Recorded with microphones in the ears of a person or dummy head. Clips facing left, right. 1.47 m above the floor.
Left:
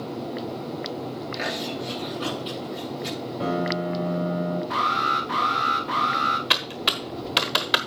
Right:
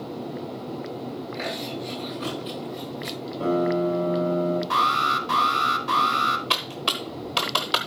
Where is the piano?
25° left (ahead or behind), 7.5 m.